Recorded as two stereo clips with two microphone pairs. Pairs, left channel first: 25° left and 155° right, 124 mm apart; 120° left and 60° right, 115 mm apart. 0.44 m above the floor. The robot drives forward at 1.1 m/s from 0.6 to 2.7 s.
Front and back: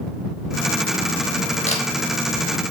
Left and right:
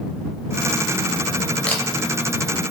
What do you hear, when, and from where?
1.7 s a camera shutter: 45° left, 0.7 m; by 1.8 s 60° left, 0.6 m